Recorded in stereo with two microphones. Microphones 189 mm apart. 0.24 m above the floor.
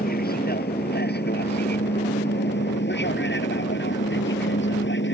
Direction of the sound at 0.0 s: 55° left (ahead or behind).